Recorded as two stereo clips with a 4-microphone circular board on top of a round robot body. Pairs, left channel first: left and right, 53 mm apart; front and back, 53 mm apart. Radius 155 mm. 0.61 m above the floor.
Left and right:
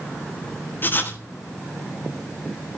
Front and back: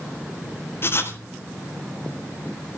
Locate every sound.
0.8 s writing: 40° left, 3.5 m